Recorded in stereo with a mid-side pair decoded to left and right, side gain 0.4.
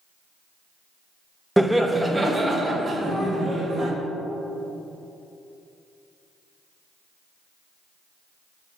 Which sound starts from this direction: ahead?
Laughter, at 1.6 s.